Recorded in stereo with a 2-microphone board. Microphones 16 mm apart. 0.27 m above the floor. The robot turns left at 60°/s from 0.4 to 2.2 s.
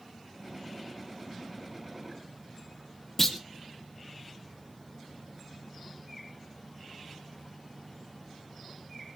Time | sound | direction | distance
3.2 | a clunk | 25° left (ahead or behind) | 1.5 m